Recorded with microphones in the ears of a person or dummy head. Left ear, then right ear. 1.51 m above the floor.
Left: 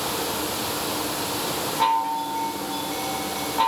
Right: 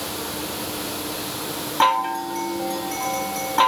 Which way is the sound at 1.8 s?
40° right (ahead or behind).